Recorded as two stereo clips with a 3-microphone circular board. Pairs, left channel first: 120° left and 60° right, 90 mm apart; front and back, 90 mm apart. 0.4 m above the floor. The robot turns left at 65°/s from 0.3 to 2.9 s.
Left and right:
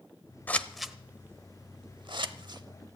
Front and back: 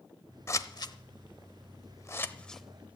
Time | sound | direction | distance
0.5 | scissors | 50° left | 0.7 m